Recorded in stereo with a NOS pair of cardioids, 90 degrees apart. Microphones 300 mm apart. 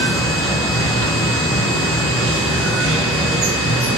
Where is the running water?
50° right, 3.5 m.